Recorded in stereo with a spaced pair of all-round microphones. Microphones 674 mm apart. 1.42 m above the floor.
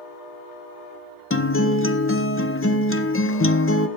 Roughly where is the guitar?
Left.